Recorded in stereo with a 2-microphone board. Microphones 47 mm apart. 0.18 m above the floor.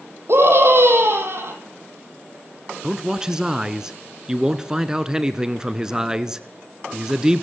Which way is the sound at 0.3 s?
60° right (ahead or behind).